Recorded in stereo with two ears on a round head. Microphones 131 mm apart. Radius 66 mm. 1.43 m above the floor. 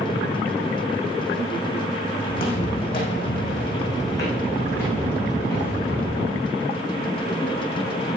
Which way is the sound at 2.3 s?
40° left (ahead or behind).